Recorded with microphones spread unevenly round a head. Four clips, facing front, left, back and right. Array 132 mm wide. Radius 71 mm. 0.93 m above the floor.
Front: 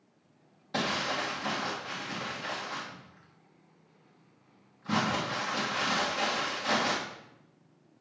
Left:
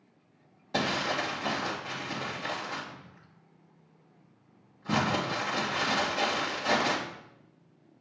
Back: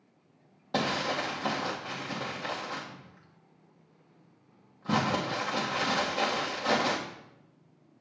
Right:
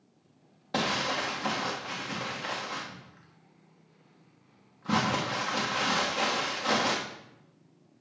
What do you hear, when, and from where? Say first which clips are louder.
0.7 s crumpling: even, back 2 dB; 155° right, 1.4 m